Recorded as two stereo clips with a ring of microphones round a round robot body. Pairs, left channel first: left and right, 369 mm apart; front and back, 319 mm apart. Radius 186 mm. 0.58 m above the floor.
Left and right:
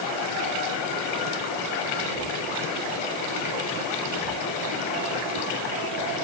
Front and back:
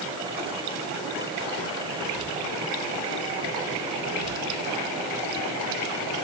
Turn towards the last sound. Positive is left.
No sound to turn to.